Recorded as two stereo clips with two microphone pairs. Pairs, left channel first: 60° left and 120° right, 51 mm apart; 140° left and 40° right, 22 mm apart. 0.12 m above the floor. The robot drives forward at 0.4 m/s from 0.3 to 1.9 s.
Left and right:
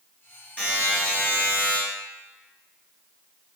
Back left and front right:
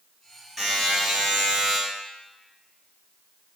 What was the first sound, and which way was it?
A buzzer, 40° left.